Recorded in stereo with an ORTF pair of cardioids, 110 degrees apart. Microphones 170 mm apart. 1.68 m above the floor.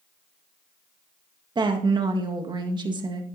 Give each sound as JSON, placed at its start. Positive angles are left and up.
{"t": 1.6, "sound": "a woman speaking", "azimuth_deg": -25, "distance_m": 1.9}